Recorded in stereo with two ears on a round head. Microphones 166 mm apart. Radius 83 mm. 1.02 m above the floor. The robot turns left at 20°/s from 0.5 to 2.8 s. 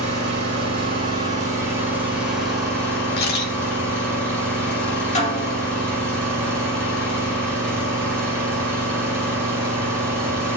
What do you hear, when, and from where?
0.0 s an engine running: 140° right, 6.5 m; by 10.6 s 175° left, 6.5 m
3.2 s a camera shutter: 55° left (ahead or behind), 2.5 m
5.2 s a snare drum: 40° left (ahead or behind), 2.5 m